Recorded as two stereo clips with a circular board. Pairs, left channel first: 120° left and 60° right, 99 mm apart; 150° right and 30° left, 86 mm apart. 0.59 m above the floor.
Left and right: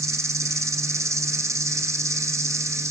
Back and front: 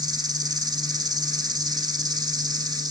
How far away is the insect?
About 1.9 m.